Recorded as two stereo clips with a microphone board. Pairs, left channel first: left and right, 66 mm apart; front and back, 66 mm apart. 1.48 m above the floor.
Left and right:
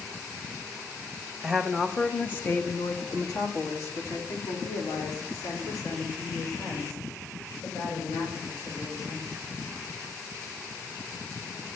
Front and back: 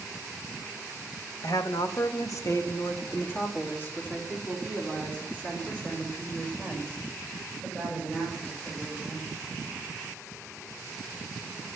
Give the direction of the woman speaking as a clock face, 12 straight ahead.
12 o'clock.